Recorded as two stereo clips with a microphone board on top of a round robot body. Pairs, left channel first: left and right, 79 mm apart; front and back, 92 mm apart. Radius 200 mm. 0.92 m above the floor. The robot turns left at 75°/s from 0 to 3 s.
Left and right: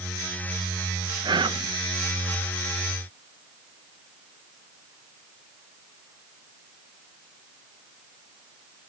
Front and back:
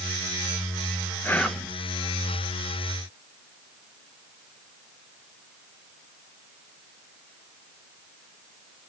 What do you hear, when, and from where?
1.2 s whispering: 65° right, 0.7 m; by 1.7 s 100° right, 0.7 m